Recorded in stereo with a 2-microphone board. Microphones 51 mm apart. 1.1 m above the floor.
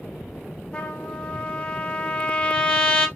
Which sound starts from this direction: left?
A trumpet, at 0.7 s.